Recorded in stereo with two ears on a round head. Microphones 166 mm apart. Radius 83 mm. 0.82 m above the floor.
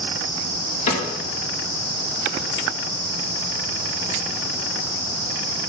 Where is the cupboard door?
40° left (ahead or behind), 2.5 m.